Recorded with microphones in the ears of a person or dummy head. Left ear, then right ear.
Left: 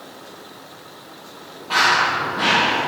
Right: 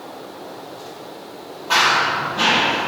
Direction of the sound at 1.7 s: 20° right (ahead or behind).